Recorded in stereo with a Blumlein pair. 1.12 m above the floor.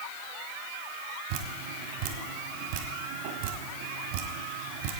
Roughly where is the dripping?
Ahead right.